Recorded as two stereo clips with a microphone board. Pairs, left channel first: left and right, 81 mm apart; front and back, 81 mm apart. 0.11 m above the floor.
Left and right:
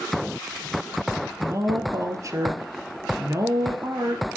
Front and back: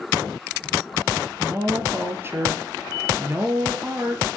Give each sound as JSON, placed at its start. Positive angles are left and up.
{"t": 1.4, "sound": "a woman speaking", "azimuth_deg": -125, "distance_m": 2.0}